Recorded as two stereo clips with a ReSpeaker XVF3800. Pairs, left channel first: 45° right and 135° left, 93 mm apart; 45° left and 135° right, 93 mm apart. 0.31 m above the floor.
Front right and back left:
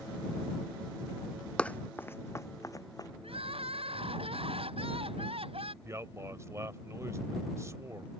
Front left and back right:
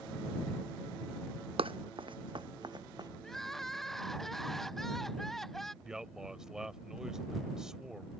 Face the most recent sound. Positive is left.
turn(degrees=145)